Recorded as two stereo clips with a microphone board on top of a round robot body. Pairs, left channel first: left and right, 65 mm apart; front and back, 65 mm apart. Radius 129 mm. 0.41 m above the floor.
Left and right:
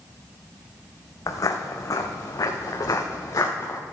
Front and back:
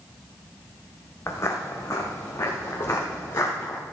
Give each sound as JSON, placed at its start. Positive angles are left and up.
{"t": 1.3, "sound": "footsteps", "azimuth_deg": 55, "distance_m": 1.2}